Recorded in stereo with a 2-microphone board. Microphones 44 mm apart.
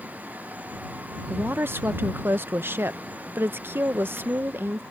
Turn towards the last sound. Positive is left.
turn(degrees=-55)  # may be behind; listen again after turning